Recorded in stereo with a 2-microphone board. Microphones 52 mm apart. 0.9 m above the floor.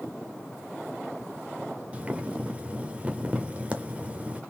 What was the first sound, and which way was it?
Boiling, 25° right (ahead or behind).